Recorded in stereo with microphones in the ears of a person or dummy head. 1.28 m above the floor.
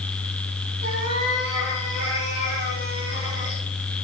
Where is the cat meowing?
60° right (ahead or behind), 6 m; by 3.6 s 70° right (ahead or behind), 3.5 m.